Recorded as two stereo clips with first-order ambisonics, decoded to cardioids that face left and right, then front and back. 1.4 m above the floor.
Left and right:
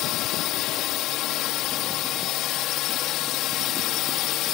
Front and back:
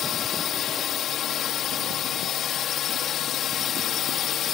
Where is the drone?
55° left.